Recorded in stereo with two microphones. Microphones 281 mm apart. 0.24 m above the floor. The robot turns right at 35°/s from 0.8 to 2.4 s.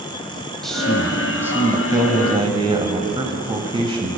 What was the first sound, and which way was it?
A man speaking, centre (ahead or behind).